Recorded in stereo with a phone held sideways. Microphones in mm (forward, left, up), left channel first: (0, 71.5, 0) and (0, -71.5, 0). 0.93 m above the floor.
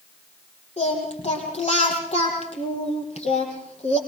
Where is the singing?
50° left (ahead or behind), 4.5 m.